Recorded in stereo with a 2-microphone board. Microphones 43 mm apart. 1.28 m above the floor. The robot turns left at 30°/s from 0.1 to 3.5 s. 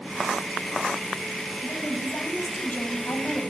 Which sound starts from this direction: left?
A woman speaking, at 1.6 s.